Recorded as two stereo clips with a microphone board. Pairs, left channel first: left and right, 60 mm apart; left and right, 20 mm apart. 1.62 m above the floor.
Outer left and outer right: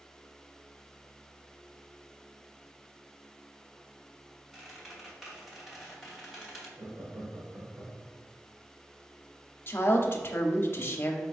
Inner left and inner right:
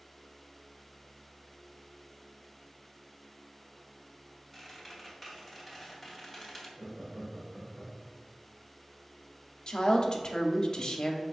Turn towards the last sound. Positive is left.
turn(degrees=40)  # may be behind; listen again after turning